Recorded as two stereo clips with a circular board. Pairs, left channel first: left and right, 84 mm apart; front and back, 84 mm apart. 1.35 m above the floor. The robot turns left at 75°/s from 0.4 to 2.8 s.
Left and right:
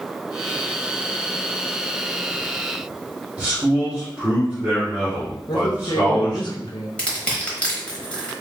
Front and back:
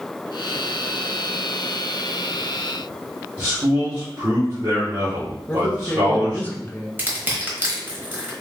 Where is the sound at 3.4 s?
160° right, 1.5 m.